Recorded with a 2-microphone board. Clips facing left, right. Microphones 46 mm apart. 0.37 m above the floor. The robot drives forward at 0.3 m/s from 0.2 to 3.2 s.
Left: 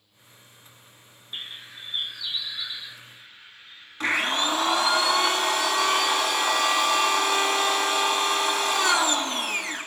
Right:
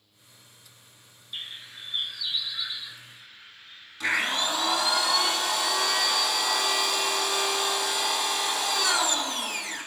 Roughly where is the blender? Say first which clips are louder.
Left 2 dB; left.